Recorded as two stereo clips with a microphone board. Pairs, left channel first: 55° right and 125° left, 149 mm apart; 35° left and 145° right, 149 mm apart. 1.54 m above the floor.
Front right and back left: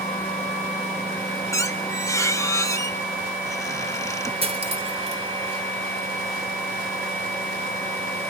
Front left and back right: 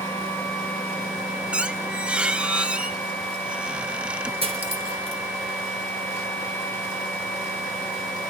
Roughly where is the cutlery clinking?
Behind.